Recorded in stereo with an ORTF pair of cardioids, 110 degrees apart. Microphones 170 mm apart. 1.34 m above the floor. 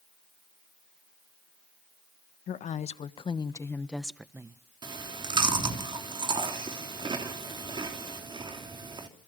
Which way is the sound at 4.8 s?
30° right.